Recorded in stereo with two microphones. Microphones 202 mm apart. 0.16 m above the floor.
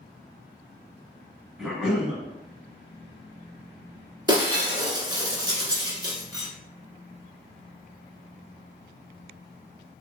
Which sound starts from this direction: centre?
A cough, at 1.6 s.